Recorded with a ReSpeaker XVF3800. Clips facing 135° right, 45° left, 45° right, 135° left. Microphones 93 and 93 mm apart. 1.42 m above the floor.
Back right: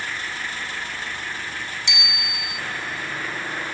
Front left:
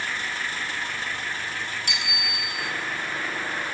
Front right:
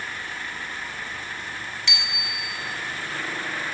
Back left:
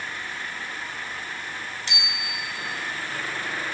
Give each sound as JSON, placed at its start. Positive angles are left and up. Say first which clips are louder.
{"t": 1.9, "sound": "a bicycle bell", "louder": "back right 1 dB, even", "azimuth_deg": 85, "distance_m": 8.0}